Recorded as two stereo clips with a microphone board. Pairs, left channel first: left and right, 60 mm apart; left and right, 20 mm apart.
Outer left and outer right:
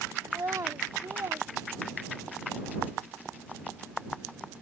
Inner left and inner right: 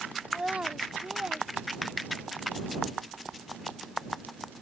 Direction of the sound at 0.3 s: 70° right (ahead or behind).